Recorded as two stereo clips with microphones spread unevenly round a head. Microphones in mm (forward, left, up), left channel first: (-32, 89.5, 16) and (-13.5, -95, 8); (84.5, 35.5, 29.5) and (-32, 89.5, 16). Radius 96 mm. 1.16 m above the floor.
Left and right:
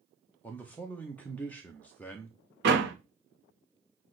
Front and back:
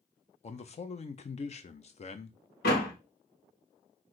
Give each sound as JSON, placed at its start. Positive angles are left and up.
{"t": 0.4, "sound": "a man speaking", "azimuth_deg": 15, "distance_m": 0.5}
{"t": 2.6, "sound": "a door slam", "azimuth_deg": -45, "distance_m": 1.3}